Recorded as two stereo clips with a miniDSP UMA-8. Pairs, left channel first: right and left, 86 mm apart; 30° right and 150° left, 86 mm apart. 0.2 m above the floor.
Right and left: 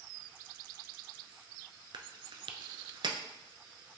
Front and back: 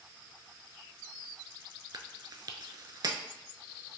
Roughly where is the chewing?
Left.